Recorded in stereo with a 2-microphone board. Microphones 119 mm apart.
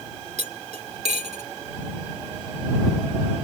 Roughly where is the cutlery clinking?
Right.